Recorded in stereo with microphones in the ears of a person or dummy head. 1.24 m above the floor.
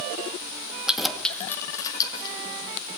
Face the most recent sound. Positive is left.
turn(degrees=25)  # may be behind; listen again after turning